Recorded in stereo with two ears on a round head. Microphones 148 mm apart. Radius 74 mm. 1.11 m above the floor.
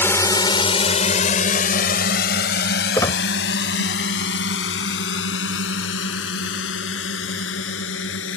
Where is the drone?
15° left (ahead or behind); by 8.4 s 90° left.